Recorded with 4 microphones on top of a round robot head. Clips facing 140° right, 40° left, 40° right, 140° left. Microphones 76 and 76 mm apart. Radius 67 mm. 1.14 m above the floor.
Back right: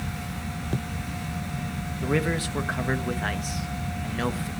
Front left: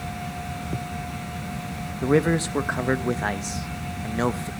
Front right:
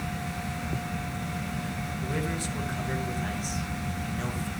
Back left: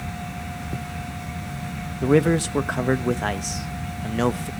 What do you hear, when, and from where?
2.0 s a man speaking: 105° left, 1.1 m